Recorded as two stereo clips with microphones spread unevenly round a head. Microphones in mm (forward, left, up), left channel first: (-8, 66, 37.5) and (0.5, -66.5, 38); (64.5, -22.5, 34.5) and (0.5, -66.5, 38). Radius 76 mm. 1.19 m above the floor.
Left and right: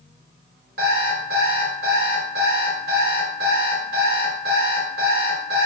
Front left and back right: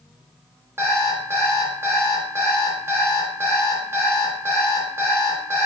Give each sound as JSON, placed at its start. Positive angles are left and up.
{"t": 0.8, "sound": "an alarm clock", "azimuth_deg": -90, "distance_m": 0.8}